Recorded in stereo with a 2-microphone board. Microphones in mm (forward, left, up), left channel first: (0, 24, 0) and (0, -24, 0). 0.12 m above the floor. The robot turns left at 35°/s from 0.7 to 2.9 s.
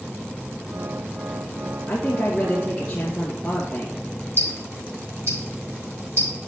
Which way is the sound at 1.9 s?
70° left.